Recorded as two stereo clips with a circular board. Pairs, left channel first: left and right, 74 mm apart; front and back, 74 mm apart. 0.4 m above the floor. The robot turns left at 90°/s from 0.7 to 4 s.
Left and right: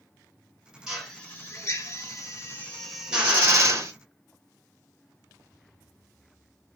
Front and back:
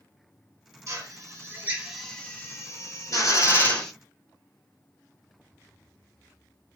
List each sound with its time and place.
0.9 s a drill: 170° right, 2 m; by 3.9 s 85° right, 2 m